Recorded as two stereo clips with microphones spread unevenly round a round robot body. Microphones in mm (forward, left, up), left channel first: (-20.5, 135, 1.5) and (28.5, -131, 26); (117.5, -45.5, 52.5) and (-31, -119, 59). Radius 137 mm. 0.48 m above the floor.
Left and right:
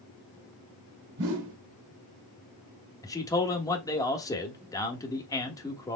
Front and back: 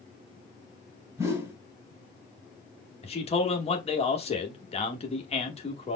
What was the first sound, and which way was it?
A whoosh, 80° right.